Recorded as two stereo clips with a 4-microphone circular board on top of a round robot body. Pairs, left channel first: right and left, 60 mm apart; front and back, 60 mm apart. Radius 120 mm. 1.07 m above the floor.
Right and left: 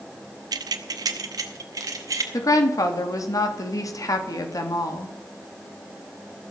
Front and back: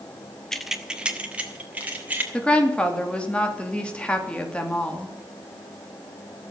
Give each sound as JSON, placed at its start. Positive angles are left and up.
{"t": 0.5, "sound": "keys jangling", "azimuth_deg": 85, "distance_m": 0.5}
{"t": 2.3, "sound": "a woman speaking", "azimuth_deg": -70, "distance_m": 2.5}